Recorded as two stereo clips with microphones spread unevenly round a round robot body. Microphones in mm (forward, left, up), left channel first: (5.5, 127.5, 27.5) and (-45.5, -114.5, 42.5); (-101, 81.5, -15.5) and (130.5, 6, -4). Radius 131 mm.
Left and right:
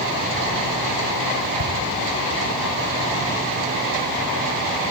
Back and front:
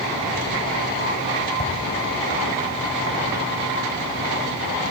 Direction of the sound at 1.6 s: 90° left.